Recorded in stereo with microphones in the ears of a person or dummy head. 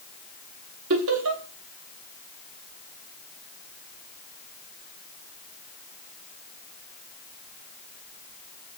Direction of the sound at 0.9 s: 75° right (ahead or behind).